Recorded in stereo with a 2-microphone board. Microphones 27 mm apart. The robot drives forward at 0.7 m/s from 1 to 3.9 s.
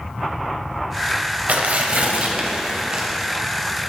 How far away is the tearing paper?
About 1.0 m.